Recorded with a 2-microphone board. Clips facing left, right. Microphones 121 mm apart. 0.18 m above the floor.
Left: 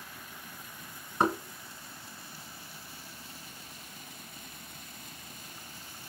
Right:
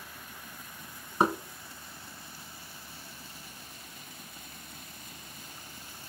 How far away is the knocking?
About 1.1 m.